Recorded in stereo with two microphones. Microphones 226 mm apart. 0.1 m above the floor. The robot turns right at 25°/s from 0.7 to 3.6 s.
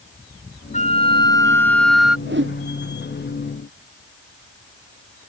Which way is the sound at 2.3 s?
50° right (ahead or behind).